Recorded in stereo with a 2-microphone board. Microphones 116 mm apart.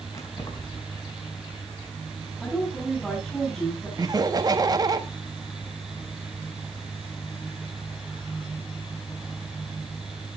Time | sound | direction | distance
0.1 | keys jangling | 30° left (ahead or behind) | 4 m
2.4 | a woman speaking | 5° left (ahead or behind) | 8.5 m
4.0 | laughter | 35° right (ahead or behind) | 1.6 m